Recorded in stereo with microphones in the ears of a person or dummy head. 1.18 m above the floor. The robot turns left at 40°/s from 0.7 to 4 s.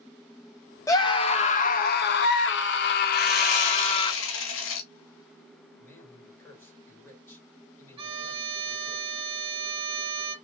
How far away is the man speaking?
About 3 m.